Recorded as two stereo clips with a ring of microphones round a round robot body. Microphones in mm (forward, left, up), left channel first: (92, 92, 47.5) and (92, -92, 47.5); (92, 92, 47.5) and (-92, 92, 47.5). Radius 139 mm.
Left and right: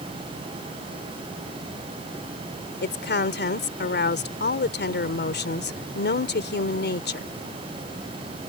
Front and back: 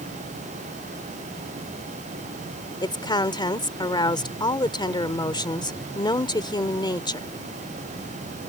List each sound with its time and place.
2.8 s a woman speaking: 65° left